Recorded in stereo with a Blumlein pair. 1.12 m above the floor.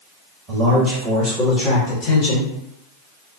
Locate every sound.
0.5 s a man speaking: 35° right, 1.3 m; by 2.5 s 55° left, 1.1 m